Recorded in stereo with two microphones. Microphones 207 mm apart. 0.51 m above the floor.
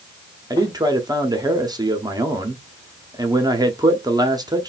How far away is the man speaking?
About 0.7 m.